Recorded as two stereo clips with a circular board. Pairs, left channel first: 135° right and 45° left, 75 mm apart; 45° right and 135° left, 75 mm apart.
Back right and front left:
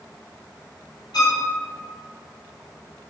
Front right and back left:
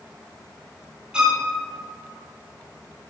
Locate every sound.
1.1 s a violin: 145° right, 1.7 m